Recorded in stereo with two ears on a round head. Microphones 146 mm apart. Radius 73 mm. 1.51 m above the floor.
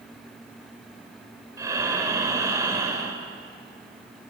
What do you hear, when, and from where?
1.6 s breathing: 20° right (ahead or behind), 1.6 m